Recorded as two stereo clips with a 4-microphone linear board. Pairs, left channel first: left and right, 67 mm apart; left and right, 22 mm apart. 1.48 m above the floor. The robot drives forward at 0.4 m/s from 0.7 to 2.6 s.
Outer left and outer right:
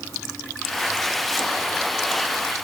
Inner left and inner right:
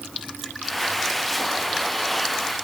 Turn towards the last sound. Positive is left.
No sound to turn to.